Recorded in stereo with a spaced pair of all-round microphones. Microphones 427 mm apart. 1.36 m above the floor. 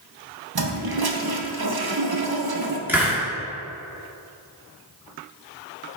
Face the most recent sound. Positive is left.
turn(degrees=-5)  # may be behind; listen again after turning